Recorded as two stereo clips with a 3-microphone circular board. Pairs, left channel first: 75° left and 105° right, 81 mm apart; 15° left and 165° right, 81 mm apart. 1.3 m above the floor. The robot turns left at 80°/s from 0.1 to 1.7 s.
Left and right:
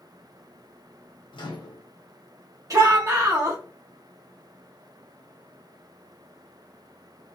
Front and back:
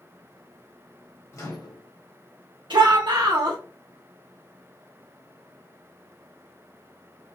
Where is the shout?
150° right, 0.7 m.